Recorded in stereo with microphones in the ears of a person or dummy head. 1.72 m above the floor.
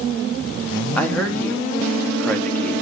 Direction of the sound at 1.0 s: 5° left (ahead or behind).